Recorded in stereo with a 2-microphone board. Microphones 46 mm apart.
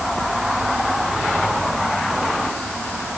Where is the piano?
I don't hear a piano.